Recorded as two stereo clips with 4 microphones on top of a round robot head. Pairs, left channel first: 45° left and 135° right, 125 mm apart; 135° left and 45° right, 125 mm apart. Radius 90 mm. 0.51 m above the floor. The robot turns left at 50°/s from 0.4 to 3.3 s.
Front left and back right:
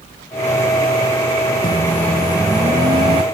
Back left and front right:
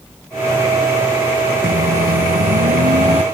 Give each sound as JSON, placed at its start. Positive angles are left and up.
{"t": 1.6, "sound": "a microwave", "azimuth_deg": -10}